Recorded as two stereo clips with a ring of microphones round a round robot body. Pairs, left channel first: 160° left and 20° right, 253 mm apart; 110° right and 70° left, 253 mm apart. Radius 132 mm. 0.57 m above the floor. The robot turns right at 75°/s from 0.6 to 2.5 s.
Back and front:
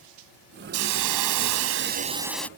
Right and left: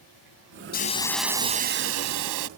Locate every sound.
0.7 s a hiss: 60° right; by 2.5 s 75° left